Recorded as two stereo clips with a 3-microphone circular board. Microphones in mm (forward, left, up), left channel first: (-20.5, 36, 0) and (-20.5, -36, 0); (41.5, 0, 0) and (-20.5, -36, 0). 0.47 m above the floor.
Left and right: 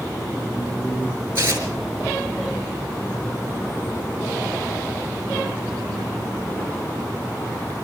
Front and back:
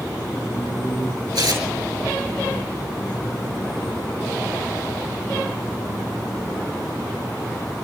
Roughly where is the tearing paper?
Behind right.